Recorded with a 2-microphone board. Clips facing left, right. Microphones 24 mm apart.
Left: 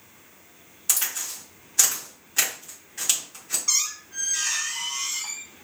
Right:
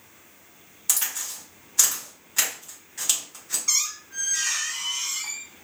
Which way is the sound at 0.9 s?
10° left (ahead or behind).